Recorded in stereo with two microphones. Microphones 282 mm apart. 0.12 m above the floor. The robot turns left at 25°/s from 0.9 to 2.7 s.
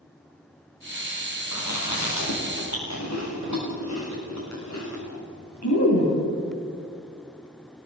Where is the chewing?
80° left, 9.5 m; by 6.1 s 70° left (ahead or behind), 9.5 m.